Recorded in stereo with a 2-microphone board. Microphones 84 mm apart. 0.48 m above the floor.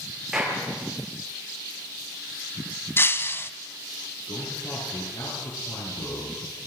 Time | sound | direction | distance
0.3 | a clap | 5° right (ahead or behind) | 8.5 m
3.0 | breaking glass | 30° left (ahead or behind) | 1.1 m
4.3 | a man speaking | 70° left (ahead or behind) | 6.5 m